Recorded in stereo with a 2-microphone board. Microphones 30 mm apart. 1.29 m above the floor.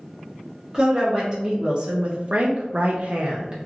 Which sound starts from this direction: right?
A woman speaking, at 0.7 s.